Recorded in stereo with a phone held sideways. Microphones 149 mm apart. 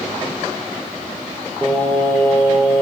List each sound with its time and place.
1.6 s singing: 5° left (ahead or behind), 1.2 m